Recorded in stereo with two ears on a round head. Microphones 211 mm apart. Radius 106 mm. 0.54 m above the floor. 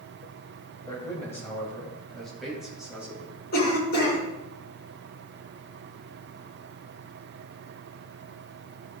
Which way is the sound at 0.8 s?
15° left (ahead or behind).